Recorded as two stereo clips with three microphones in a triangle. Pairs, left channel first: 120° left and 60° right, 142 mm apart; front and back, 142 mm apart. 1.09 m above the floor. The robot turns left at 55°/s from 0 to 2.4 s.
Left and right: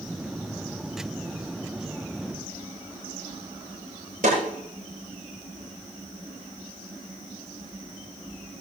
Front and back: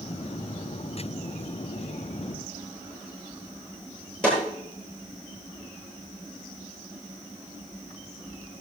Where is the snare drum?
85° right, 9.5 m.